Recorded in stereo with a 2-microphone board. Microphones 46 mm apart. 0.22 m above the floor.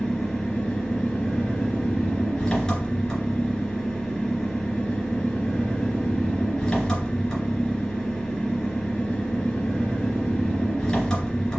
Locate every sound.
0.0 s an engine running: 15° left (ahead or behind), 2.5 m